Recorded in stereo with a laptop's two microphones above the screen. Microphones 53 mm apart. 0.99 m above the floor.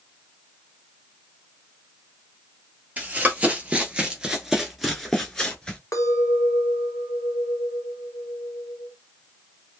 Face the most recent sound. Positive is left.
turn(degrees=80)